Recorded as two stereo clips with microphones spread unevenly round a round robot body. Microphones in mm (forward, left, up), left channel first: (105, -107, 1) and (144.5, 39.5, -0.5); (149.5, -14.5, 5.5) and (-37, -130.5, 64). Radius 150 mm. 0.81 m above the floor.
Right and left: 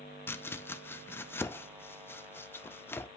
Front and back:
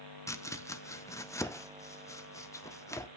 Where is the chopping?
30° right, 0.7 m.